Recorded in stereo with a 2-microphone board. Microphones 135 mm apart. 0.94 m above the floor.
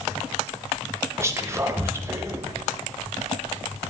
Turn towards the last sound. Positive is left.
turn(degrees=-20)  # may be behind; listen again after turning